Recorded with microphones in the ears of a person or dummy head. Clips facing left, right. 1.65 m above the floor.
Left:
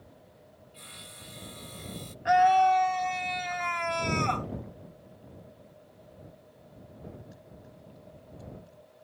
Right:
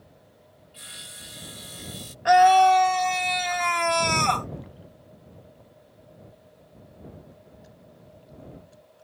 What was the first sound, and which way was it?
Sawing, 10° right (ahead or behind).